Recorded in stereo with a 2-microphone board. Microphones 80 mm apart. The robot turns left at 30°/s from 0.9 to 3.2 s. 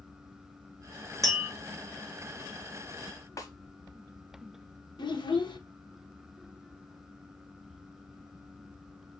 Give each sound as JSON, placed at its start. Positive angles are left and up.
{"t": 1.2, "sound": "tapping", "side_deg": 45, "distance_m": 2.5}
{"t": 3.4, "sound": "a snare drum", "side_deg": 45, "distance_m": 0.7}
{"t": 5.0, "sound": "a child speaking", "side_deg": 75, "distance_m": 0.9}